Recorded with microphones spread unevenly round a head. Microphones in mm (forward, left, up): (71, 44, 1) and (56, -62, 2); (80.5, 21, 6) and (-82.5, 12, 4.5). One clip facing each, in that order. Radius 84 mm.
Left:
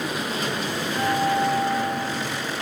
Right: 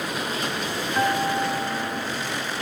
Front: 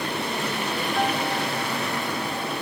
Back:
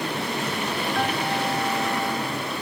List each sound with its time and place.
0.9 s a guitar: 80° right, 1.8 m